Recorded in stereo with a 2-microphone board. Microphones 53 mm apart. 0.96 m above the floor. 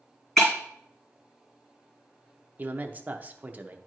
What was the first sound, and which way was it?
Breaking glass, 5° left (ahead or behind).